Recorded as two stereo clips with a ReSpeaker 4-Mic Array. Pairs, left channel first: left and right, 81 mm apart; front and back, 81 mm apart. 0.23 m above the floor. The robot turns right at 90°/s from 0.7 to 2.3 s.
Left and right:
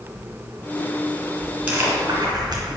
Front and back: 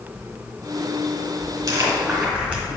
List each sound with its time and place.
1.7 s chewing: 160° right, 2 m; by 2.8 s 105° right, 2 m